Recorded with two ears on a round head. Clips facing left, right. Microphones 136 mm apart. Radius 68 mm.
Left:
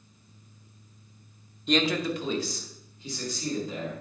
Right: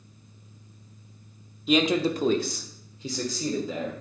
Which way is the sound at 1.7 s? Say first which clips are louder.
Right 3 dB; centre (ahead or behind).